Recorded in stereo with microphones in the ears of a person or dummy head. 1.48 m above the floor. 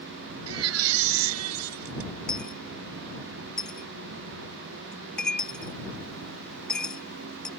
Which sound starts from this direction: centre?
A dropped coin, at 2.3 s.